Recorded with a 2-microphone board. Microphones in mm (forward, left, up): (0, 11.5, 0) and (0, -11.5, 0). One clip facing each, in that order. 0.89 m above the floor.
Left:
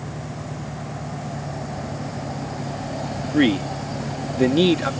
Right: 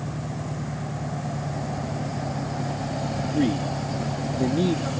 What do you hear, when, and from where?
0.0 s an engine running: 60° right (ahead or behind)
3.3 s a man speaking: 60° left (ahead or behind)